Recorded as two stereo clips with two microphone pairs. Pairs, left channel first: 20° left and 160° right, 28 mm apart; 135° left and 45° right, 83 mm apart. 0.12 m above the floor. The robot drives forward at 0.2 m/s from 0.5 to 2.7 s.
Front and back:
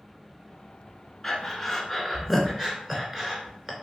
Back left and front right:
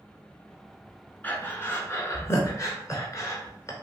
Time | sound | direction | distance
1.2 | breathing | 80° left | 0.6 m